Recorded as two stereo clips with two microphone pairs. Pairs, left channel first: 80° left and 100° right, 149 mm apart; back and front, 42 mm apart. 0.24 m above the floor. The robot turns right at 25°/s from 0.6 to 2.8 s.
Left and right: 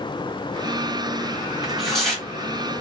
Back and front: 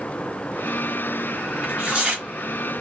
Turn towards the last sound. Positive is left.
turn(degrees=10)